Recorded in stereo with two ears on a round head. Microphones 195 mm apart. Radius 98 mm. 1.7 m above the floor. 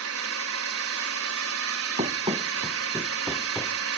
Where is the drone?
70° right (ahead or behind).